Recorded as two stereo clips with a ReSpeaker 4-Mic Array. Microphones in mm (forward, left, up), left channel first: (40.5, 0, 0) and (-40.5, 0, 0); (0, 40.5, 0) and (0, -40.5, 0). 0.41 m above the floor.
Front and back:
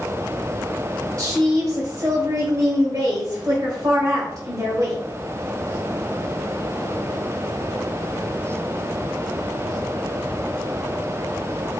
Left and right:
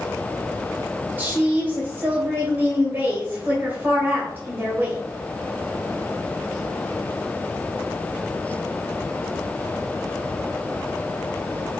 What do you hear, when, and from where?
1.2 s a woman speaking: 150° right, 1.5 m